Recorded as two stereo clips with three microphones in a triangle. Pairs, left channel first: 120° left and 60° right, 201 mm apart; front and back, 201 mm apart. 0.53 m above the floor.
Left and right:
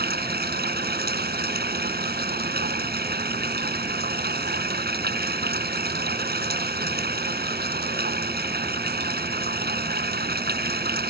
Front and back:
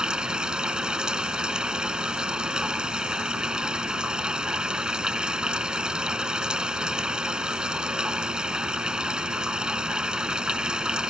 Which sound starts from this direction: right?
Running water, at 0.0 s.